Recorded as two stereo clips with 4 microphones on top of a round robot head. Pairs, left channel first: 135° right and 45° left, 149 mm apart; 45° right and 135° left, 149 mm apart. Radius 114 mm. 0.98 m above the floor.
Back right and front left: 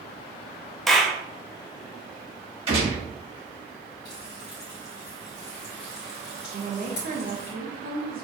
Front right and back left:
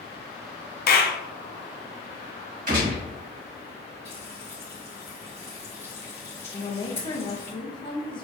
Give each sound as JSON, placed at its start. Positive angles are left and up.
{"t": 0.9, "sound": "a clap", "azimuth_deg": -50, "distance_m": 0.9}
{"t": 2.7, "sound": "a gunshot", "azimuth_deg": 100, "distance_m": 2.0}
{"t": 4.0, "sound": "frying", "azimuth_deg": -120, "distance_m": 1.3}
{"t": 6.5, "sound": "a woman speaking", "azimuth_deg": 20, "distance_m": 0.9}